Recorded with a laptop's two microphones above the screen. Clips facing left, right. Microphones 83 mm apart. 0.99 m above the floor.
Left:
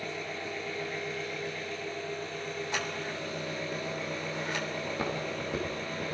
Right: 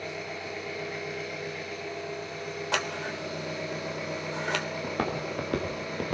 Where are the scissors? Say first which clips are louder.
Right 6 dB; 80° right, 3.5 m.